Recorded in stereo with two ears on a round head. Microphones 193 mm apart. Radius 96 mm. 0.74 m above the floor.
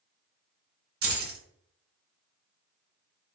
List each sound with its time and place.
1.0 s keys jangling: 55° right (ahead or behind), 1.7 m